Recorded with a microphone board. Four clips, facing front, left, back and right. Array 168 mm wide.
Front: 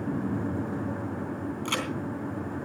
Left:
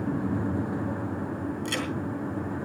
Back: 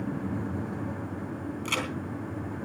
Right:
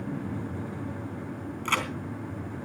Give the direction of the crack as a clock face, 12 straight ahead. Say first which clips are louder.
Right 6 dB, even; 3 o'clock.